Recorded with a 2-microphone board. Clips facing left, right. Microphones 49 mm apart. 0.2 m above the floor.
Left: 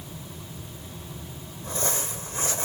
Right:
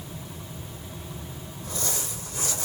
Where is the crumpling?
30° left (ahead or behind), 1.3 m.